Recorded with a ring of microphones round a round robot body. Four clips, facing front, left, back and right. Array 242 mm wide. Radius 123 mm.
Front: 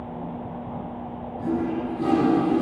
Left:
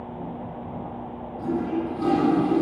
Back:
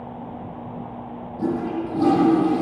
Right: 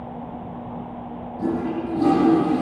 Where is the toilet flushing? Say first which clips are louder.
Right 1 dB, back 1 dB; 155° right, 10 m.